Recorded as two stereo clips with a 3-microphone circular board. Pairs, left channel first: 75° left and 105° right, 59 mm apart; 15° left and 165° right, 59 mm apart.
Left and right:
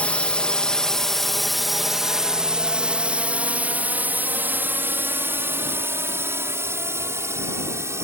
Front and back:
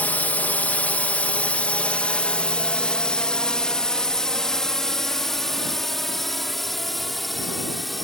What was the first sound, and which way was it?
A drone, 35° left.